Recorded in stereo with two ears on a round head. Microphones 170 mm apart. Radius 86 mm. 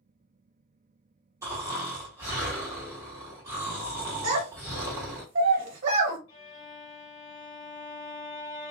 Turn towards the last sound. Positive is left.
turn(degrees=30)  # may be behind; listen again after turning